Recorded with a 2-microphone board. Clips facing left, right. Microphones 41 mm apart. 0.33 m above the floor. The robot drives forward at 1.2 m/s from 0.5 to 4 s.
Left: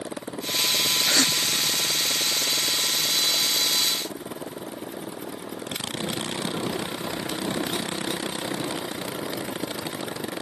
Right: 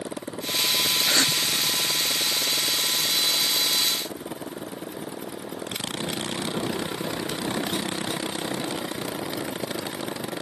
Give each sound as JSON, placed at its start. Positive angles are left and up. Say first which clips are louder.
{"t": 1.1, "sound": "a gasp", "louder": "even", "side_deg": -25}